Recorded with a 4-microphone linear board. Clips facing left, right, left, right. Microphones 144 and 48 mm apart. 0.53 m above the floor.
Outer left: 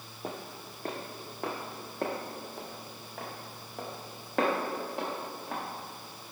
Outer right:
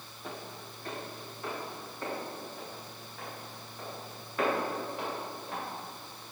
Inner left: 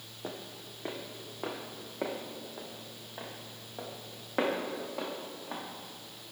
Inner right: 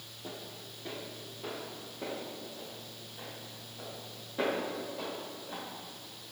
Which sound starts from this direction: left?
Footsteps, at 0.2 s.